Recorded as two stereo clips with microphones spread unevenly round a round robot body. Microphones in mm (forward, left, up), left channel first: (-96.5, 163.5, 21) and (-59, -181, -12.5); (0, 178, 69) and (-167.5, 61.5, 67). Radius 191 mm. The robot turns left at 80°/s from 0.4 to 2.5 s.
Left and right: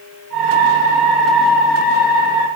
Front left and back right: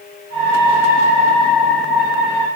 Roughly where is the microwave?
I don't hear a microwave.